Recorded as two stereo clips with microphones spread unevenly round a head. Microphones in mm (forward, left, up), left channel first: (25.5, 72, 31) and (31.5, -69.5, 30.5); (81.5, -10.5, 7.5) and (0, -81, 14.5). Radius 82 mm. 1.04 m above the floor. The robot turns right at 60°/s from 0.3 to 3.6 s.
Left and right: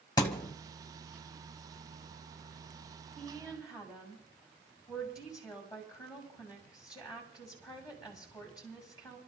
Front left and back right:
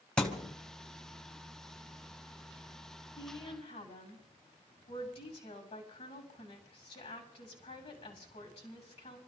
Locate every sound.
0.2 s a thud: 125° left, 1.0 m; by 0.5 s 140° left, 1.0 m
3.2 s a woman speaking: 5° left, 7.5 m; by 9.2 s 30° left, 7.5 m